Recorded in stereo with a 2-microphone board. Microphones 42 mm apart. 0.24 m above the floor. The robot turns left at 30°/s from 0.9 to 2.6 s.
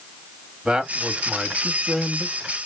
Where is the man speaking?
25° right (ahead or behind), 1.0 m; by 2.7 s 10° right (ahead or behind), 1.0 m.